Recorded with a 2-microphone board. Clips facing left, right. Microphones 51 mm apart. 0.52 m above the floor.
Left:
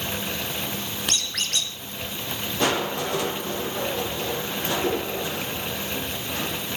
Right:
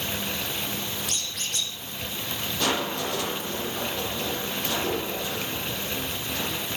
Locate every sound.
1.1 s a squeak: 80° left, 2.5 m
2.6 s crushing: 25° left (ahead or behind), 7.5 m